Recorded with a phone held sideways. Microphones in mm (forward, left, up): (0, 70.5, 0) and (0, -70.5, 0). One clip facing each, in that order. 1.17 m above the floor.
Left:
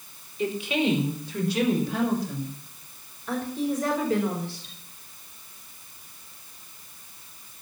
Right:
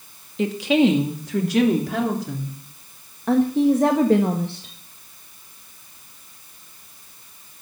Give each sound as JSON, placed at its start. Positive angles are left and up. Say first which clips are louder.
{"t": 0.4, "sound": "a woman speaking", "louder": "right 8 dB", "side_deg": -80, "distance_m": 2.0}
{"t": 3.3, "sound": "a woman speaking", "louder": "right 11 dB", "side_deg": -60, "distance_m": 1.4}